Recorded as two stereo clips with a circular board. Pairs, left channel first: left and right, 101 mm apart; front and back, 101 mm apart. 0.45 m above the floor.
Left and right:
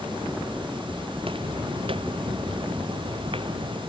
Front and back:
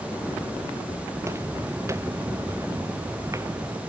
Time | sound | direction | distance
1.1 | footsteps | 120° right | ?